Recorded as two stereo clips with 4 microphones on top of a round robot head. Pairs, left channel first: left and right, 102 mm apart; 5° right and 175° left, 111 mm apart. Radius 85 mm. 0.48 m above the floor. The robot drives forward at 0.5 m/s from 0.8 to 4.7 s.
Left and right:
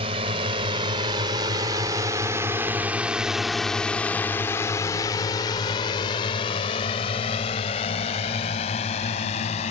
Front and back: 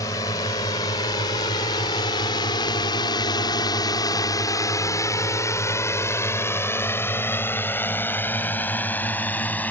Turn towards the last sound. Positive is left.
turn(degrees=70)